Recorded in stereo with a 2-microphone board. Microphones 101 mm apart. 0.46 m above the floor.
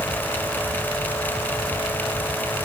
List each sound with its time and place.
Only background noise.